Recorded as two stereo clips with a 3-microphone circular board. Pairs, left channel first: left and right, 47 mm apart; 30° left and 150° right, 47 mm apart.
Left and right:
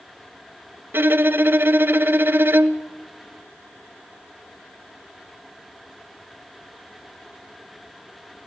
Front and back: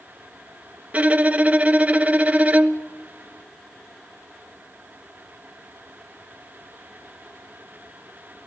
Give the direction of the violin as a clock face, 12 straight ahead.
3 o'clock.